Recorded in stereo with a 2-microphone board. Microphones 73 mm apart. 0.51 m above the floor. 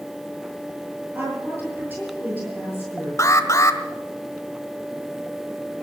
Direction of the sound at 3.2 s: 45° left (ahead or behind).